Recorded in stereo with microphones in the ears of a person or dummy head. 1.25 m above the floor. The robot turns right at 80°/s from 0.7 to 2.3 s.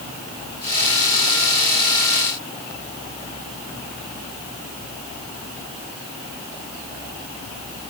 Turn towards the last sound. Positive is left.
No sound to turn to.